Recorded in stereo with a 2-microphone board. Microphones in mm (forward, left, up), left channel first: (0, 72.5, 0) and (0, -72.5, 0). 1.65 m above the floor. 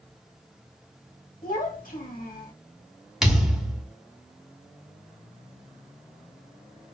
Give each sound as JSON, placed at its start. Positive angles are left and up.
{"t": 1.4, "sound": "a child speaking", "side_deg": 70, "distance_m": 2.0}
{"t": 3.2, "sound": "a thud", "side_deg": 0, "distance_m": 1.4}